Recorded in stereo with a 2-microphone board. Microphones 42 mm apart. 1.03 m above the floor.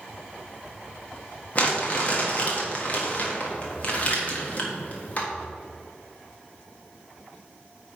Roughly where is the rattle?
No rattle in this recording.